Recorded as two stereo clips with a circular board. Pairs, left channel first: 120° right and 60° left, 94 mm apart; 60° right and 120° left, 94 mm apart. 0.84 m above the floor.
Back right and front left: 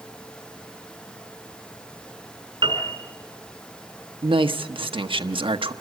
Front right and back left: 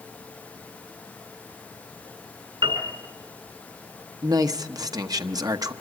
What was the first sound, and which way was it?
A piano, 95° left.